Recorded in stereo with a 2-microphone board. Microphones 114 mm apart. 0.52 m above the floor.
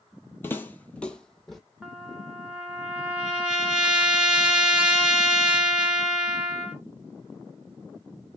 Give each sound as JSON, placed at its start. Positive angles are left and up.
{"t": 0.4, "sound": "footsteps", "side_deg": 20, "distance_m": 0.5}
{"t": 1.8, "sound": "a trumpet", "side_deg": -10, "distance_m": 0.7}